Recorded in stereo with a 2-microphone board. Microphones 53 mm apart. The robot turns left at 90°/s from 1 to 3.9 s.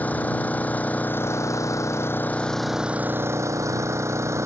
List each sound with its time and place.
0.0 s an engine running: 150° left; by 4.5 s 110° right